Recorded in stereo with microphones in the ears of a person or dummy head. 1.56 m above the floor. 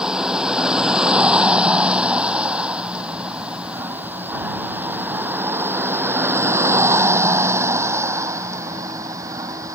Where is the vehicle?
15° right (ahead or behind); by 9.8 s 25° right (ahead or behind).